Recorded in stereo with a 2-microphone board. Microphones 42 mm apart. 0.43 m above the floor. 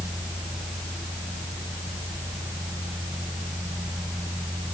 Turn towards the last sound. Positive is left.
No sound to turn to.